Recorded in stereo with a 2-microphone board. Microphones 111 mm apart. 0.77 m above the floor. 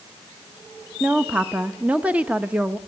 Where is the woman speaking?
10° right (ahead or behind), 0.6 m.